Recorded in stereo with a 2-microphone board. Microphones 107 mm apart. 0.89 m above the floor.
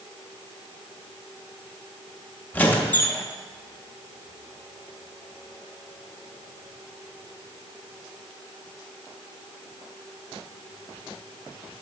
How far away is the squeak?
About 0.7 m.